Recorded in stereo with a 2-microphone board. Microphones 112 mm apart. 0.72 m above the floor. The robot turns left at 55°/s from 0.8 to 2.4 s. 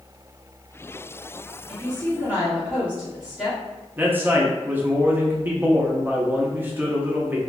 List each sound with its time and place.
1.7 s a woman speaking: 130° right, 1.8 m; by 3.6 s 170° right, 1.8 m
4.0 s a man speaking: 15° right (ahead or behind), 0.6 m